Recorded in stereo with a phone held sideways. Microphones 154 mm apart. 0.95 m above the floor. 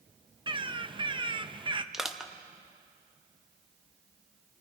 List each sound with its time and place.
0.5 s a bird: 35° right (ahead or behind), 0.7 m
1.9 s crushing: 5° right (ahead or behind), 1.0 m